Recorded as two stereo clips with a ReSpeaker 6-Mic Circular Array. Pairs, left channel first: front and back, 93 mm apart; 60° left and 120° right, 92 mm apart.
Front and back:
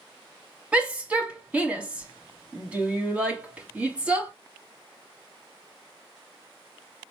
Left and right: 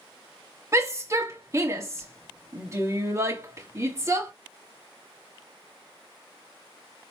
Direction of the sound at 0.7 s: 115° right.